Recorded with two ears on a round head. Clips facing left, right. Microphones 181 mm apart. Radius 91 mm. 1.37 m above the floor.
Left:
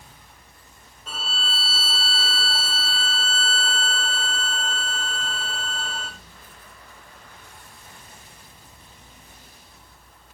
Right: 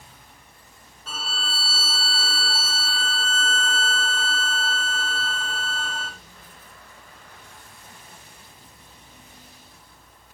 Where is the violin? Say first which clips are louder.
Even; 15° left (ahead or behind), 1.7 m.